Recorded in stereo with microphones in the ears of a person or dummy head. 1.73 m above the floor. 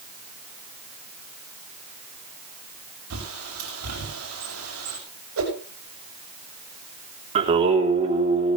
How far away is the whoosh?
About 7 m.